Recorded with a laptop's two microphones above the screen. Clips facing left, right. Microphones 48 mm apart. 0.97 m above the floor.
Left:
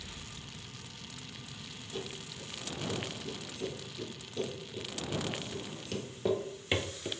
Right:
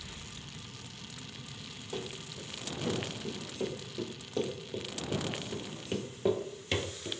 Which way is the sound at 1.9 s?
75° right (ahead or behind).